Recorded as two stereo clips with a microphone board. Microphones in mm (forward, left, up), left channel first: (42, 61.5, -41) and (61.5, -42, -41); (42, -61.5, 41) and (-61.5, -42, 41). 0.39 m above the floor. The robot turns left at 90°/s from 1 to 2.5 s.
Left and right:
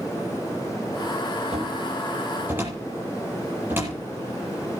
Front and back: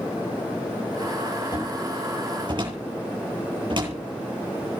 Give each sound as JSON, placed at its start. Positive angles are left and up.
{"t": 1.5, "sound": "a cupboard door", "azimuth_deg": -60, "distance_m": 9.5}